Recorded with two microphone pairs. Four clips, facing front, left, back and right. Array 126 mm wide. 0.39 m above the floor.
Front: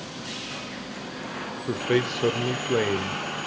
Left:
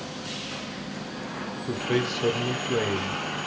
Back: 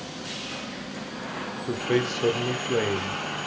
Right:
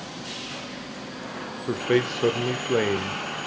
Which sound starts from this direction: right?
A man speaking, at 1.7 s.